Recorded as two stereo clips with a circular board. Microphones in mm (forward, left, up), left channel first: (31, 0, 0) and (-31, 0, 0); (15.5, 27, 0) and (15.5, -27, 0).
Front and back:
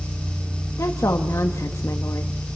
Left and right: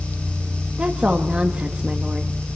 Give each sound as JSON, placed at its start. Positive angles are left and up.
{"t": 0.8, "sound": "a woman speaking", "azimuth_deg": -25, "distance_m": 1.3}